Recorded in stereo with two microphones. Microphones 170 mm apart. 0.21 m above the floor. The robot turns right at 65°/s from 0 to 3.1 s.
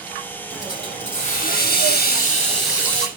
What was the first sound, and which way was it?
A hiss, 10° left.